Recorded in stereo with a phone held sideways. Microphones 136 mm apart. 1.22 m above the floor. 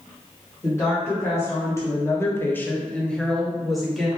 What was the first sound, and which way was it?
A woman speaking, 15° left (ahead or behind).